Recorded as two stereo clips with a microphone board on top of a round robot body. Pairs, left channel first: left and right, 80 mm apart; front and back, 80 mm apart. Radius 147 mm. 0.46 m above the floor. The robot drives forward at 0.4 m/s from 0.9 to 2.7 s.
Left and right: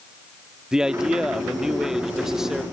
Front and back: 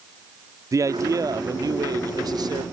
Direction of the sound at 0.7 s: 170° right.